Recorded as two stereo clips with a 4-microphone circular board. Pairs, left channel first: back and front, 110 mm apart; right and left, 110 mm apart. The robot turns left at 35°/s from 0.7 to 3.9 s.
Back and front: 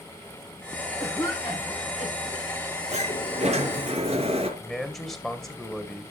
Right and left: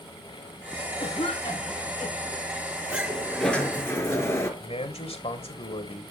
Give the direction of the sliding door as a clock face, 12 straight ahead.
12 o'clock.